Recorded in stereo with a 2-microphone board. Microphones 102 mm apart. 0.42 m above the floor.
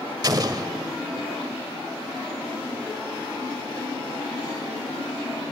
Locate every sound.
0.2 s an explosion: 40° right (ahead or behind), 1.4 m